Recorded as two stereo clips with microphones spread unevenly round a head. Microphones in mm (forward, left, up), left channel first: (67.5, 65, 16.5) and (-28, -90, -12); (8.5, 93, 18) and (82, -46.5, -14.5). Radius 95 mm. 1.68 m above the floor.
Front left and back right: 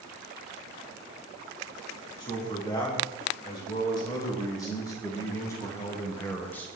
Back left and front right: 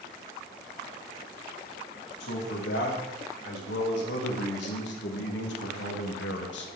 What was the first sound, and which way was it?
A man speaking, 125° left.